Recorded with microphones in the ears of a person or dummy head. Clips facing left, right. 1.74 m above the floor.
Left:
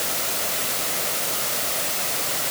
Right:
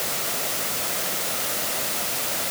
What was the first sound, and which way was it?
Only background noise.